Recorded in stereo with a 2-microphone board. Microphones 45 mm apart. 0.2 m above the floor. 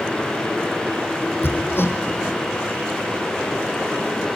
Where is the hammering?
55° left (ahead or behind), 3.5 m.